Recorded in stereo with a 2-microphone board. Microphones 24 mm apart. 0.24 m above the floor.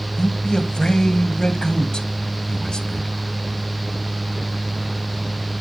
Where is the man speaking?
30° left (ahead or behind), 1.4 m.